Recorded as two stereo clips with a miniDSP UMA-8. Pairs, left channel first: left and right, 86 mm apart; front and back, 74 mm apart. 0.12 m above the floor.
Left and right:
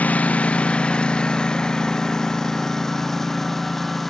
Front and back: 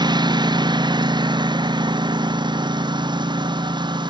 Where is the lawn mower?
165° left; by 4.1 s straight behind.